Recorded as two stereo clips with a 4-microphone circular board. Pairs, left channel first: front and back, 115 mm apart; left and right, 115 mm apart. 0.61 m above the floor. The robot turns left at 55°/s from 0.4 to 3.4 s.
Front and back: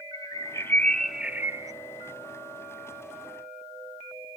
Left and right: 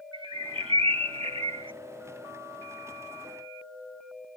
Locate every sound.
0.1 s a bird: 55° right; by 1.7 s 125° right